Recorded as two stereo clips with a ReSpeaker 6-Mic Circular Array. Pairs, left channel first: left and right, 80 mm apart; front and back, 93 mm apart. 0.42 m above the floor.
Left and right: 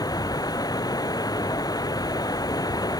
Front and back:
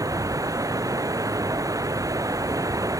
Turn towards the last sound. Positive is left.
turn(degrees=125)